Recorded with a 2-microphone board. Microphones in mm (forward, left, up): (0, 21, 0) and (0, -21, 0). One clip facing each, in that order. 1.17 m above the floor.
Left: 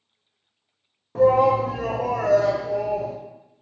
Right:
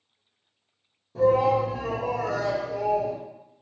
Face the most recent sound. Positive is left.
turn(degrees=30)  # may be behind; listen again after turning